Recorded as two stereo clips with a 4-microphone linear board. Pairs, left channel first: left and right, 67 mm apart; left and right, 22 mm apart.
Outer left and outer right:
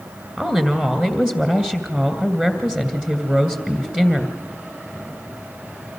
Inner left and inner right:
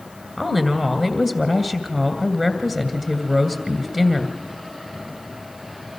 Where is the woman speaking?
15° right (ahead or behind), 2.5 m.